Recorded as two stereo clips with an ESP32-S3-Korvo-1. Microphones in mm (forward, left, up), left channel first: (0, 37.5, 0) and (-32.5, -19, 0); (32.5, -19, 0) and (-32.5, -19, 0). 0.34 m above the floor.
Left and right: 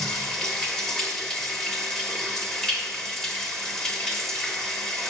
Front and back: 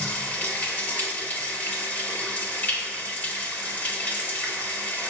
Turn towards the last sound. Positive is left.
turn(degrees=-5)